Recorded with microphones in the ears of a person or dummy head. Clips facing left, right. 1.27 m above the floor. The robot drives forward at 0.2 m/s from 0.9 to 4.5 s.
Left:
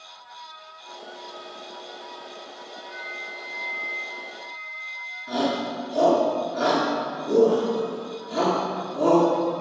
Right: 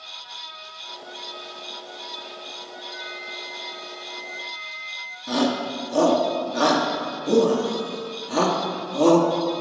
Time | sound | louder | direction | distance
2.9 | a flute | right 1 dB | 20° right (ahead or behind) | 1.2 m
5.3 | a shout | right 2 dB | 85° right | 1.6 m